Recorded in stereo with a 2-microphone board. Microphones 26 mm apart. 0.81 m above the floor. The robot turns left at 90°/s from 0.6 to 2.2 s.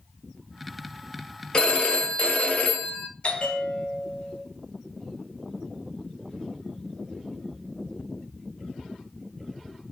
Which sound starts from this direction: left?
A bell, at 3.2 s.